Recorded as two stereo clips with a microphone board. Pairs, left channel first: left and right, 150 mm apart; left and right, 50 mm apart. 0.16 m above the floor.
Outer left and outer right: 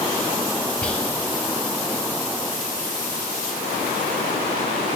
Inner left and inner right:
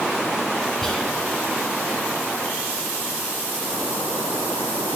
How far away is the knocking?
I don't hear knocking.